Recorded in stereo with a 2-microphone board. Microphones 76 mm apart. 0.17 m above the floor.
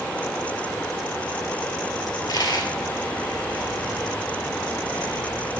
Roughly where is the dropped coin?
Left.